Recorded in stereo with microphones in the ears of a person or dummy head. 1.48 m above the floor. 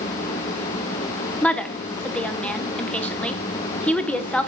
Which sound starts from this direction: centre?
A woman speaking, at 1.4 s.